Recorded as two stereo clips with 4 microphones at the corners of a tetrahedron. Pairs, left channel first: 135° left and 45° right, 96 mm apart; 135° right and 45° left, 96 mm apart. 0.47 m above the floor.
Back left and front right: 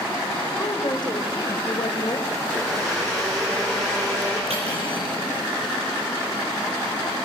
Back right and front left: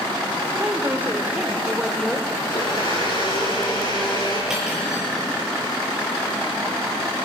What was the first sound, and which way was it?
A woman speaking, 100° left.